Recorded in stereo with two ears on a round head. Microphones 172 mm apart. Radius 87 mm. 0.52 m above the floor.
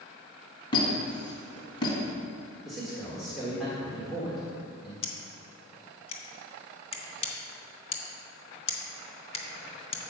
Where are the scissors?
30° left (ahead or behind), 1.1 m.